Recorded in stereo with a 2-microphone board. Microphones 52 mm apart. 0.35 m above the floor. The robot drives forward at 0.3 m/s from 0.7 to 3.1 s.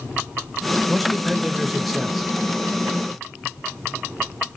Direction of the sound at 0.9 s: Centre (ahead or behind).